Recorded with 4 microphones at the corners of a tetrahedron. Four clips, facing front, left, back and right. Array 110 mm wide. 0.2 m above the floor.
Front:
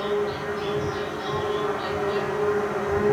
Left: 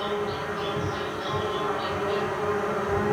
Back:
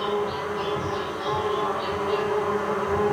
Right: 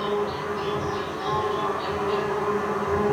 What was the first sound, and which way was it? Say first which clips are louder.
An insect: right 2 dB, even; 115° right.